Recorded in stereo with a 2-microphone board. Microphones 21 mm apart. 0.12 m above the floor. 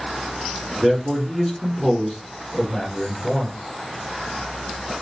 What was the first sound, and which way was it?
A man speaking, 20° right (ahead or behind).